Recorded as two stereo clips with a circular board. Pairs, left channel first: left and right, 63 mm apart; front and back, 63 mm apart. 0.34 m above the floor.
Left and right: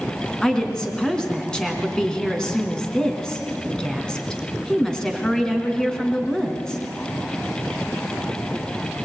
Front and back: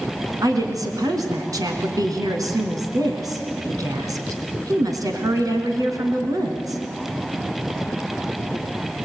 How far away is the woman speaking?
About 3 m.